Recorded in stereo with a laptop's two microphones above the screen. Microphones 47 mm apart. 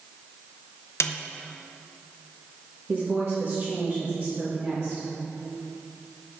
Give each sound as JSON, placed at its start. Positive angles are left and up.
{"t": 1.0, "sound": "a snare drum", "side_deg": 70, "distance_m": 0.6}
{"t": 2.9, "sound": "a woman speaking", "side_deg": -55, "distance_m": 1.5}